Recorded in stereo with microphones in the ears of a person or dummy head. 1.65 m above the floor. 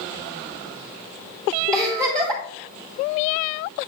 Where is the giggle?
25° right (ahead or behind), 2.5 m.